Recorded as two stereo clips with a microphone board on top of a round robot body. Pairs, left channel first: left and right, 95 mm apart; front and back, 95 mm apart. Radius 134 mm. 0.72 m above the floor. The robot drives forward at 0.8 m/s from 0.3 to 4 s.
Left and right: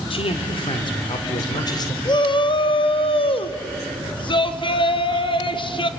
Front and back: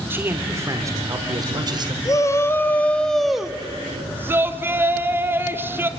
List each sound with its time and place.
0.1 s a man speaking: 110° left, 2 m; by 1.9 s 140° left, 3 m
2.0 s a shout: 55° left, 1.7 m; by 5.9 s 115° left, 1.5 m